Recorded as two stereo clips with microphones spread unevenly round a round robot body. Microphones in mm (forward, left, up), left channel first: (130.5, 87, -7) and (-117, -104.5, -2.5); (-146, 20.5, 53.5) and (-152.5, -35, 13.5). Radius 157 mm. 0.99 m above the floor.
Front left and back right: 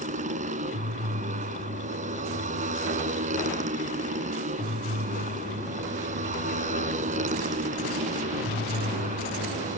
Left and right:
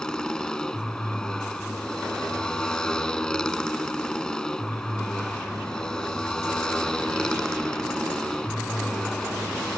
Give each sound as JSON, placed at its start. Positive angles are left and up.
{"t": 0.0, "sound": "a motorcycle", "azimuth_deg": 150}